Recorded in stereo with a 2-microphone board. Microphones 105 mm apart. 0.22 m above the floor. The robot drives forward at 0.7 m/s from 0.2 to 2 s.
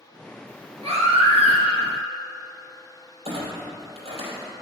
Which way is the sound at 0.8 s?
70° right (ahead or behind).